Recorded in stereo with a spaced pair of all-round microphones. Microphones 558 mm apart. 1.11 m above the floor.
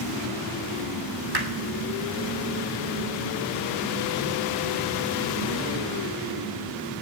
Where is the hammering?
40° right (ahead or behind), 2.5 m.